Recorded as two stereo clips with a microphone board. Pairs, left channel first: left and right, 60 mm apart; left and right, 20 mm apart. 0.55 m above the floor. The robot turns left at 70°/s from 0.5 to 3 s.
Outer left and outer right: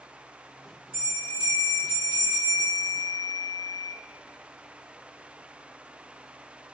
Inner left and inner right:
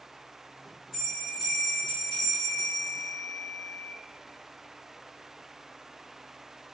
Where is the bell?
20° right (ahead or behind), 1.4 m; by 3.9 s 25° left (ahead or behind), 1.4 m.